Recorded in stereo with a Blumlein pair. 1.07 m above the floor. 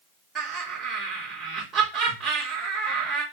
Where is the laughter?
15° right, 1.8 m.